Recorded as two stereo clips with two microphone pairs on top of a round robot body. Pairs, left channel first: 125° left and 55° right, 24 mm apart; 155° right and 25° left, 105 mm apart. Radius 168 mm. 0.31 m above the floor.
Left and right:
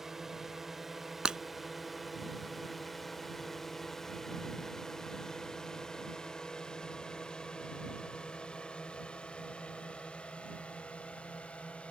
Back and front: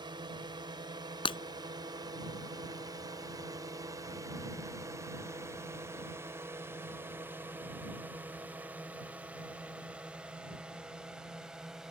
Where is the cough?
I don't hear a cough.